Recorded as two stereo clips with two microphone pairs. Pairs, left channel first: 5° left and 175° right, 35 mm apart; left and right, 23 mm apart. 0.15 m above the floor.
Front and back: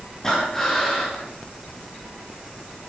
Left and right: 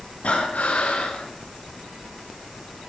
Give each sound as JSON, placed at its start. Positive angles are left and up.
{"t": 0.2, "sound": "breathing", "azimuth_deg": 85, "distance_m": 7.5}